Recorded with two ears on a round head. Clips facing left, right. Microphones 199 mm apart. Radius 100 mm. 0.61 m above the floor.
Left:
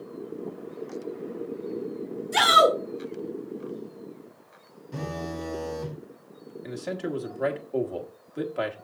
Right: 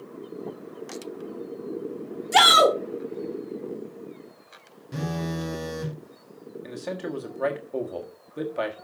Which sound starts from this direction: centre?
A man speaking, at 6.6 s.